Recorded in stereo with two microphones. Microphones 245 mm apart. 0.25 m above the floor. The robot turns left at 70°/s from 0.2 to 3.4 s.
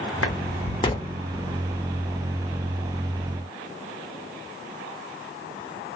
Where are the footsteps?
65° left (ahead or behind), 0.8 m; by 1.2 s 5° right (ahead or behind), 0.8 m.